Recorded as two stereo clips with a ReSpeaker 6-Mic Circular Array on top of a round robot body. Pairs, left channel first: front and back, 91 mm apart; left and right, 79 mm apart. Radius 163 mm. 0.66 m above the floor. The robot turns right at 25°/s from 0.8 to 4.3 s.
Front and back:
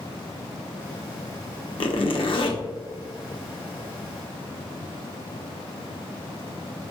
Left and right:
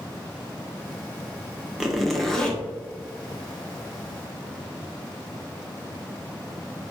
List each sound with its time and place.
1.8 s a zipper: 5° right, 0.9 m; by 2.6 s 15° left, 0.9 m